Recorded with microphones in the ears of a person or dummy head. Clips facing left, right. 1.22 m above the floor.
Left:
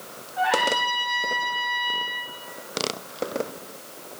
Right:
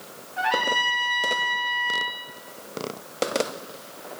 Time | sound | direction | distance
0.4 | a trumpet | 25° right (ahead or behind) | 1.3 m